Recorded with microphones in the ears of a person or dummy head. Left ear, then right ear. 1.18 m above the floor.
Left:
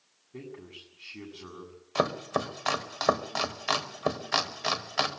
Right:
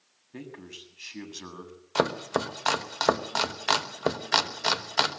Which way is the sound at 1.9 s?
25° right (ahead or behind).